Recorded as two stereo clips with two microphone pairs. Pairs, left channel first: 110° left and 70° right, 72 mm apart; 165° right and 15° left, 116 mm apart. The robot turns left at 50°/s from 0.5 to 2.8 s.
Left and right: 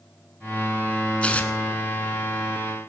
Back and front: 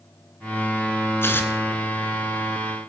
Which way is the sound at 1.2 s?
160° left.